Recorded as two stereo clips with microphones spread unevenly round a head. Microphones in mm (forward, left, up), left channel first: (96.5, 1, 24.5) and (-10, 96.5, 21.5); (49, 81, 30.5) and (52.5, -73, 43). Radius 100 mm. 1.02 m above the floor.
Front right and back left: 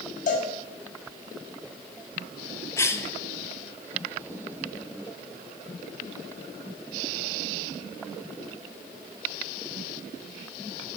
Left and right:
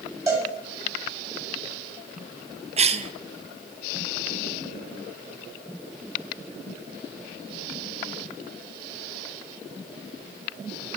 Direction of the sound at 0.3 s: 20° right.